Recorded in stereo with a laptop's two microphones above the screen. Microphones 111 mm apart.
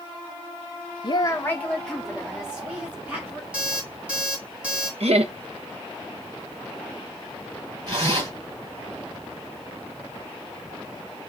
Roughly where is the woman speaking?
Left.